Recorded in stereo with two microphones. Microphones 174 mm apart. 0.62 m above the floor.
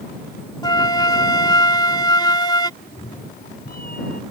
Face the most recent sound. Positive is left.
turn(degrees=60)  # may be behind; listen again after turning